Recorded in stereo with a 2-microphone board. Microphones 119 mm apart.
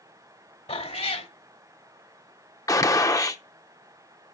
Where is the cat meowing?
65° left (ahead or behind), 1.6 m.